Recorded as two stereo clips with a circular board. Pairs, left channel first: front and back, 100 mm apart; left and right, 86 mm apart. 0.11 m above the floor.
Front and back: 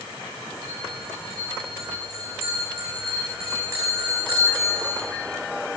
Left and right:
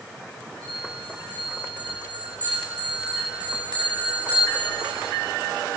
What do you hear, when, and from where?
0.6 s a bell: 60° right, 7.5 m